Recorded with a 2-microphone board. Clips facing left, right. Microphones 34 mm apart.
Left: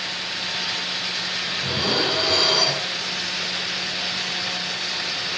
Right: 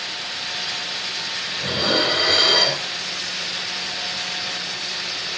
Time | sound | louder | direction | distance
1.6 | dishes clattering | right 3 dB | 75° right (ahead or behind) | 5.5 m